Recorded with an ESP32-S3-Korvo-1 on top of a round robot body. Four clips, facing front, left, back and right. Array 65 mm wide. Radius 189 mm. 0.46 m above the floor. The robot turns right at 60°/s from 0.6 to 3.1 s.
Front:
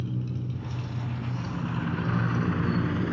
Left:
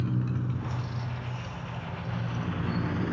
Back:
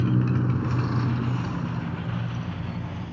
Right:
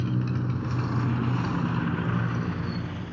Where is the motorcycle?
175° right; by 3.1 s 25° left.